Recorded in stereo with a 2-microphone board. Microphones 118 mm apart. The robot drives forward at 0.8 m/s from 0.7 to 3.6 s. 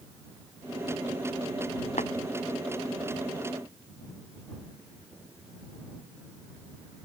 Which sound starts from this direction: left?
Tapping, at 2.0 s.